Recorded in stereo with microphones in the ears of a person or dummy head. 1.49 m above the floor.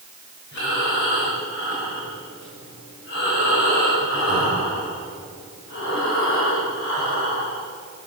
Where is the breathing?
70° left (ahead or behind), 6.5 m.